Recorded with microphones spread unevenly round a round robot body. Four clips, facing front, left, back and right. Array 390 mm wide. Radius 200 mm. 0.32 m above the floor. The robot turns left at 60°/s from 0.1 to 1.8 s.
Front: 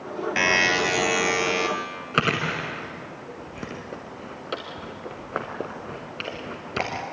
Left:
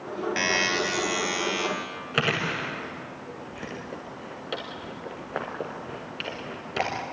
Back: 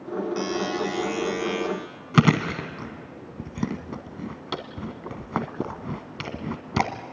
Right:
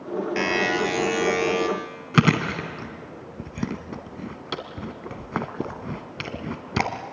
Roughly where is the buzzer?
Ahead.